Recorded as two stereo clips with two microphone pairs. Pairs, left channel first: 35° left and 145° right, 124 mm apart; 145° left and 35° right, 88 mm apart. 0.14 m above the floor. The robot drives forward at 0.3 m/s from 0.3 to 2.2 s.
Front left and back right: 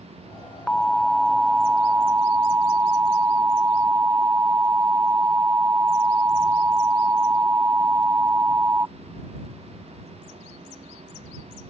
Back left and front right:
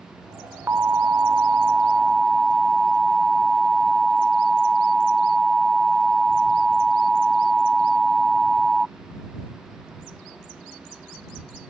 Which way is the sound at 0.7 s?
30° right.